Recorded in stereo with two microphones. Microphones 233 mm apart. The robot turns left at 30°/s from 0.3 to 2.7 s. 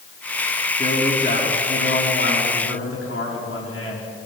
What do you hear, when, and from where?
0.8 s a man speaking: 140° left, 6.5 m; by 4.1 s 85° left, 6.5 m